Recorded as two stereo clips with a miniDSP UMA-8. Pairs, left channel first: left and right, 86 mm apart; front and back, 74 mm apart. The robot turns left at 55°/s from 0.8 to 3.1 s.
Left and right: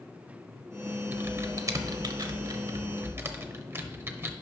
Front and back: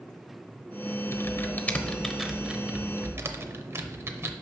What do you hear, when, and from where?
1.1 s typing on a keyboard: 30° right, 0.8 m; by 4.3 s 140° right, 0.8 m